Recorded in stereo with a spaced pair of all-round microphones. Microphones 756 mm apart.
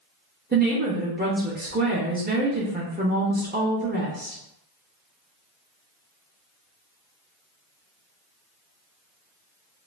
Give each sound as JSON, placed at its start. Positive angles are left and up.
{"t": 0.5, "sound": "a woman speaking", "side_deg": -15, "distance_m": 0.7}